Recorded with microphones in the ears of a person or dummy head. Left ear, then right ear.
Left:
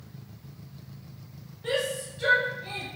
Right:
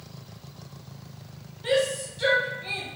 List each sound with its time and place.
1.6 s a shout: 15° right (ahead or behind), 0.8 m